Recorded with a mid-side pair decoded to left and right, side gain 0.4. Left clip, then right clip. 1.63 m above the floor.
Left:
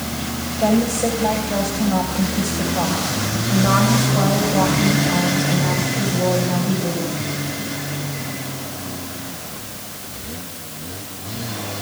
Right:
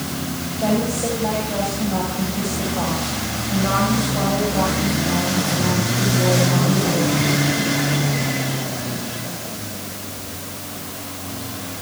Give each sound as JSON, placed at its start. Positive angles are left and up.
{"t": 0.6, "sound": "a woman speaking", "azimuth_deg": 35, "distance_m": 9.0}